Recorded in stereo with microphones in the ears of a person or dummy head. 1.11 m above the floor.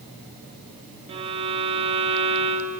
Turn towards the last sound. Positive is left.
turn(degrees=-30)  # may be behind; listen again after turning